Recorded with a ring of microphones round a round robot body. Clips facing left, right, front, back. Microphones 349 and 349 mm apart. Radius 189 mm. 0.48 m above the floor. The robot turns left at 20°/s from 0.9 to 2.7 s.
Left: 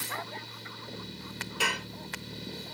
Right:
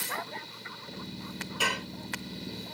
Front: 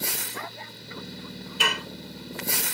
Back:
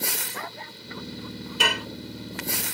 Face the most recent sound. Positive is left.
turn(degrees=125)